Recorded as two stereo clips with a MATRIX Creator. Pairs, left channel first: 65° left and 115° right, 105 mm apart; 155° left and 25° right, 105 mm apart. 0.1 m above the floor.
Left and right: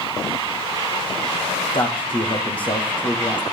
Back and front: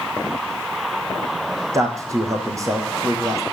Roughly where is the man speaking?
Ahead left.